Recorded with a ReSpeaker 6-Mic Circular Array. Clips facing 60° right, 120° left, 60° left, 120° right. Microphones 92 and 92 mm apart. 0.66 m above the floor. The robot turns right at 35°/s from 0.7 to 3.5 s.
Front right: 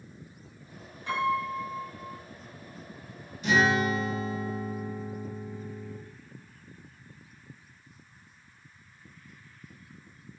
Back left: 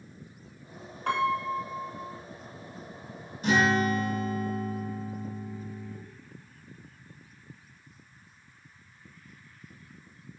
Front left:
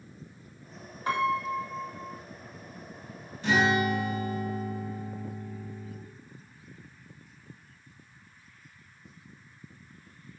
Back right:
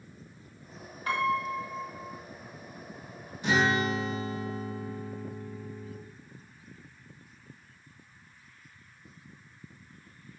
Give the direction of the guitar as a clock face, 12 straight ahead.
7 o'clock.